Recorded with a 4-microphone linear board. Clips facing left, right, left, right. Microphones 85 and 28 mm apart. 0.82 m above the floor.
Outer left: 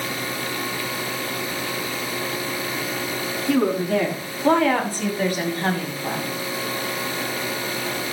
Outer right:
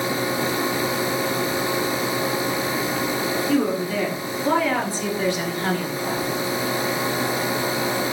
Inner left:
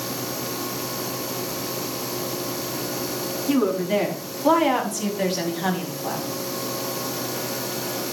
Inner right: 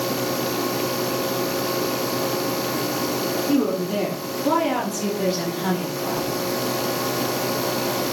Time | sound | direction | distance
3.5 | a woman speaking | 65° left (ahead or behind) | 7.5 m